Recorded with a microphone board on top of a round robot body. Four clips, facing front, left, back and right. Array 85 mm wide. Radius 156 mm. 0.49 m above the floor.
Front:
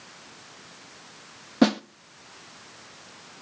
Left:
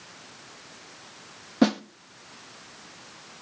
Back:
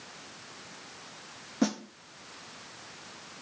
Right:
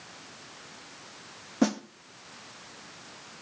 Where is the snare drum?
15° left, 0.9 m.